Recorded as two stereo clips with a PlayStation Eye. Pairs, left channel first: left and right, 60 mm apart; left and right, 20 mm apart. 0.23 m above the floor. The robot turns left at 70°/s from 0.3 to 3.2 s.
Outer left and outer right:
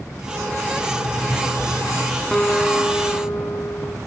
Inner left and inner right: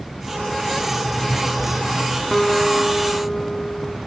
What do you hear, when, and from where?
0.9 s a zipper: 140° left, 6.5 m; by 2.2 s 45° left, 6.5 m
2.3 s a guitar: 170° left, 1.6 m; by 4.0 s 110° left, 1.6 m